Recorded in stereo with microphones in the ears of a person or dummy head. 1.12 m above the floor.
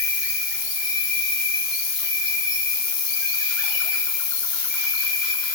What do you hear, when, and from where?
0.0 s an insect: 75° left (ahead or behind), 1.9 m